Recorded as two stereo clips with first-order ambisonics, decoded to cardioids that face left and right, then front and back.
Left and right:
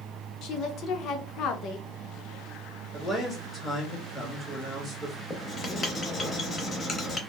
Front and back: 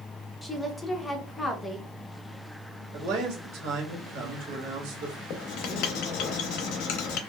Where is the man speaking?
Straight behind, 1.3 m.